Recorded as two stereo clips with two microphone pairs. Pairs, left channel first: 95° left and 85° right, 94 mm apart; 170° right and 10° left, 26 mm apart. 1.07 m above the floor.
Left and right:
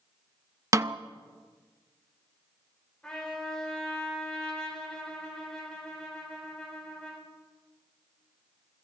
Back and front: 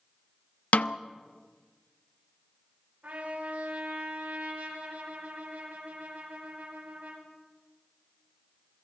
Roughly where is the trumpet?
Ahead.